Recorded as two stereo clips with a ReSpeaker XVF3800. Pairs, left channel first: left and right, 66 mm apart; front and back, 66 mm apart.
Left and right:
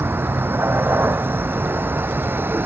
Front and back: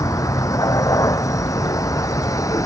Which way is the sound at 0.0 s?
35° right.